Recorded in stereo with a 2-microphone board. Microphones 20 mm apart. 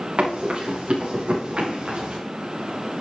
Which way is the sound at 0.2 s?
65° right (ahead or behind).